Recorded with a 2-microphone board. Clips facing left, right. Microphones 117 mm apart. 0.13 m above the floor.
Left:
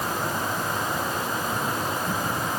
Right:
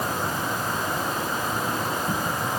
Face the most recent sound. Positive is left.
No sound to turn to.